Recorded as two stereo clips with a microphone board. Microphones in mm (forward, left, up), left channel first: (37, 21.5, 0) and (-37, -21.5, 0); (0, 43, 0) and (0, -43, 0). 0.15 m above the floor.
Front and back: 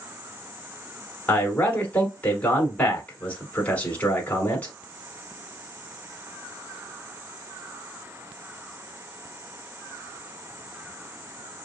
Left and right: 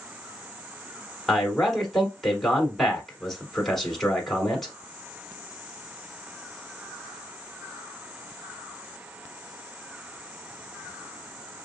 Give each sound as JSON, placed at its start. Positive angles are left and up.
{"t": 1.3, "sound": "a man speaking", "azimuth_deg": 10, "distance_m": 1.0}